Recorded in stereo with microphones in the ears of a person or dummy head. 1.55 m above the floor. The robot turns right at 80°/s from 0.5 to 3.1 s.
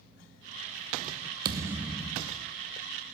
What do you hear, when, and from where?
1.4 s a thud: 40° right, 1.1 m; by 2.5 s 40° left, 1.1 m